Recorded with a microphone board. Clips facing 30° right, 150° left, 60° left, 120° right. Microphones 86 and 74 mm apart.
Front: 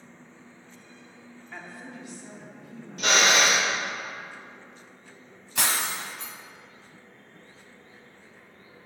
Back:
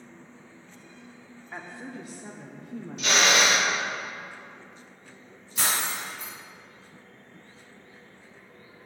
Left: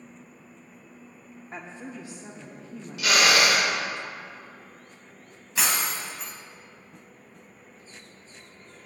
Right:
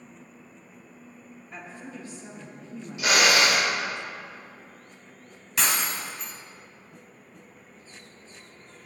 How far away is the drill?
About 1.8 m.